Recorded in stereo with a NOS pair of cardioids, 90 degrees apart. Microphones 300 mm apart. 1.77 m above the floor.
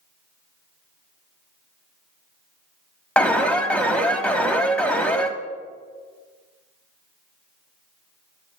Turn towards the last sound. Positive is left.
turn(degrees=5)